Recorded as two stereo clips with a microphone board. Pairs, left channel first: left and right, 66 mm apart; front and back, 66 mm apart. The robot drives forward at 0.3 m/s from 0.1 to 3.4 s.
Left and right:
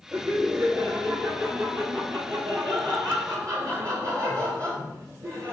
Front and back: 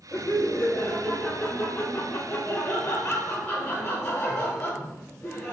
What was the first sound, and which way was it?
Laughter, 50° right.